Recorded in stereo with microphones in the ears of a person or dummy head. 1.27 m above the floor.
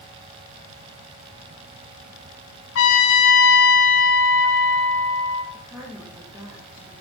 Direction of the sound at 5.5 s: 15° right (ahead or behind).